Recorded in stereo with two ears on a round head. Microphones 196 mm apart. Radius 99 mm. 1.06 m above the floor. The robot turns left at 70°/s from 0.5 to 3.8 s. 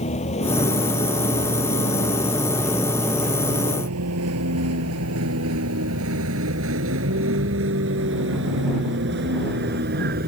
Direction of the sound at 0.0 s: 30° left (ahead or behind).